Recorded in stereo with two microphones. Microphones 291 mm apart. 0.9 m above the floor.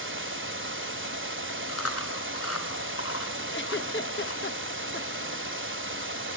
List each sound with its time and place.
0.0 s running water: 45° right (ahead or behind), 1.9 m
1.7 s chewing: 55° left (ahead or behind), 4 m
3.5 s a giggle: 40° left (ahead or behind), 0.6 m